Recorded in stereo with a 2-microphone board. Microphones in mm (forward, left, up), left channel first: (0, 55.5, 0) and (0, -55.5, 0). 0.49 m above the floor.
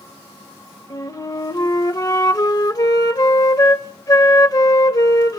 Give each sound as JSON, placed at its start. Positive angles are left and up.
{"t": 0.9, "sound": "a flute", "side_deg": 35, "distance_m": 0.7}